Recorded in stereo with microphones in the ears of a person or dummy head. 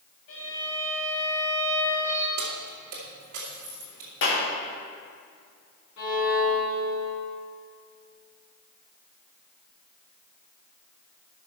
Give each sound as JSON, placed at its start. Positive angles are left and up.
{"t": 0.3, "sound": "a violin", "side_deg": 65, "distance_m": 3.0}
{"t": 2.4, "sound": "keys jangling", "side_deg": -50, "distance_m": 2.0}
{"t": 4.2, "sound": "a clap", "side_deg": 75, "distance_m": 2.5}
{"t": 6.0, "sound": "a violin", "side_deg": 60, "distance_m": 3.5}